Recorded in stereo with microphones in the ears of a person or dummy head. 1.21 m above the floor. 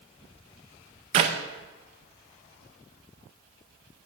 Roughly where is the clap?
Right.